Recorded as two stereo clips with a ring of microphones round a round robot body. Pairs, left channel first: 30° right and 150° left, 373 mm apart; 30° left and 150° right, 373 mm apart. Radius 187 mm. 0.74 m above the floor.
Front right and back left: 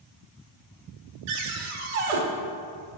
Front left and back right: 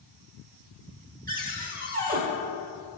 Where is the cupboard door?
140° left, 1.4 m.